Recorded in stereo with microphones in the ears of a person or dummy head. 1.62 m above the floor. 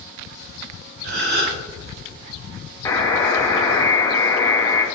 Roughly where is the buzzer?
Centre.